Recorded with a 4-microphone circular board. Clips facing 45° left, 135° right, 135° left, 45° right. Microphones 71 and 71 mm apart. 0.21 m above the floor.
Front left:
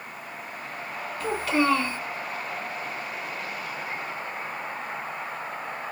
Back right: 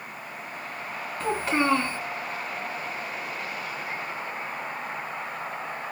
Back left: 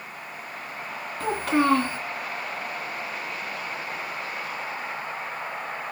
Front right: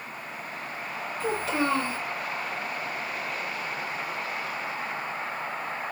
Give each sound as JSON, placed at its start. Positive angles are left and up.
{"t": 1.2, "sound": "a child speaking", "azimuth_deg": 170, "distance_m": 1.7}